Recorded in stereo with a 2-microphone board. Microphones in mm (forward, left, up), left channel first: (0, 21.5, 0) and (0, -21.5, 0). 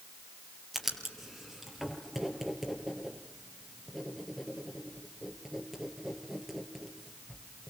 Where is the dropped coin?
I don't hear a dropped coin.